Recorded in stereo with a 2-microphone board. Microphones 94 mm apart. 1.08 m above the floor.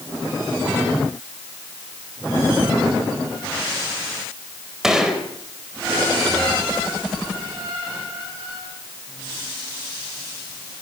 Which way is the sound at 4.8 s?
5° right (ahead or behind).